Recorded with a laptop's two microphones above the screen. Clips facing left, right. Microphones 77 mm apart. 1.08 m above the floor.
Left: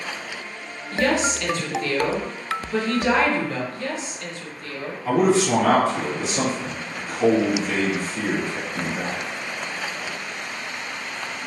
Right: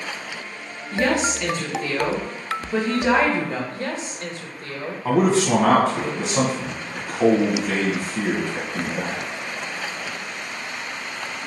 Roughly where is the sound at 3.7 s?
Right.